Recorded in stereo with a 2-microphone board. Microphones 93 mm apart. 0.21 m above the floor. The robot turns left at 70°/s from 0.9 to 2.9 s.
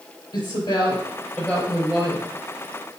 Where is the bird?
I don't hear a bird.